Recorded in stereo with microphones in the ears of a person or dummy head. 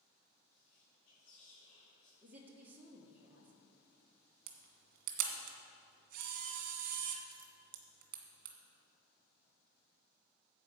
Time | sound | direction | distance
0.5 | whispering | 35° left (ahead or behind) | 1.9 m
2.2 | a woman speaking | 10° right (ahead or behind) | 1.2 m
4.5 | a camera shutter | 50° right (ahead or behind) | 1.7 m